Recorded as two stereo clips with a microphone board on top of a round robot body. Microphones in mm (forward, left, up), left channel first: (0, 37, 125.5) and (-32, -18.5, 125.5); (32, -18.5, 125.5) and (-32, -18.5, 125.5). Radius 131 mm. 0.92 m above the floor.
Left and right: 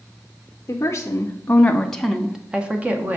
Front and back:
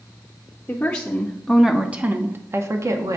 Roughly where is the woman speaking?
Ahead left.